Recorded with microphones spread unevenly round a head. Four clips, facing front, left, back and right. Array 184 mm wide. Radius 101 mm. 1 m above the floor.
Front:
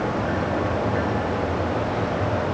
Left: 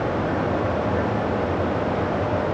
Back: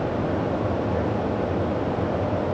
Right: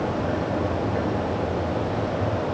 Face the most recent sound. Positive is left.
No sound to turn to.